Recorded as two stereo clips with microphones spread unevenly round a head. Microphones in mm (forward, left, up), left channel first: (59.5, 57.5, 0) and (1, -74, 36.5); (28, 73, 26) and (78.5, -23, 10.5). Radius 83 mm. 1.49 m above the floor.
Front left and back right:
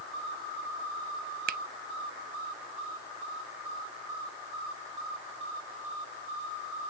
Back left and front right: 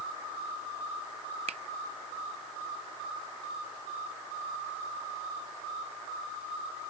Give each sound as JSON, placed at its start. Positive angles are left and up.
{"t": 1.5, "sound": "a finger snap", "azimuth_deg": -120}